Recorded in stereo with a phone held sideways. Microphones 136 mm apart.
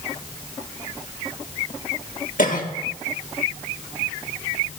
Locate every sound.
2.4 s a cough: 80° left, 1.6 m